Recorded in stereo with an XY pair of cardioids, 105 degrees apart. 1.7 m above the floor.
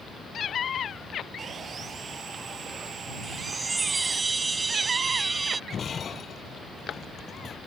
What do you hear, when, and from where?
1.4 s sawing: 45° right
3.2 s a chime: 25° right
5.7 s breaking glass: 45° left